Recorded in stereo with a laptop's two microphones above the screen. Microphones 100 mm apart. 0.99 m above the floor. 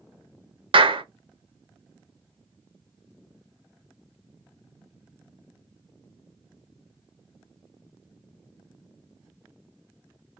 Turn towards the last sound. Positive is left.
turn(degrees=-60)  # may be behind; listen again after turning